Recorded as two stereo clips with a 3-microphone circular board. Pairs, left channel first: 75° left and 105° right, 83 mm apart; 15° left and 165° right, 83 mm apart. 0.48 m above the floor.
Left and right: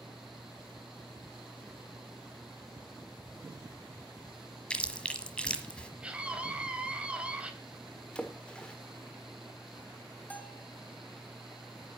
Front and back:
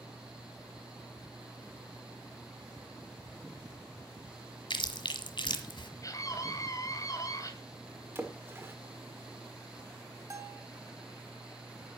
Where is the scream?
30° right, 2.5 m.